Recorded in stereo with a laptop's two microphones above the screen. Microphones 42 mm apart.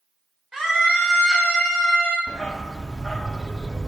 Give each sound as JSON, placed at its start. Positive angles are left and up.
{"t": 0.5, "sound": "a scream", "side_deg": -20, "distance_m": 3.0}
{"t": 2.3, "sound": "a dog barking", "side_deg": 15, "distance_m": 0.8}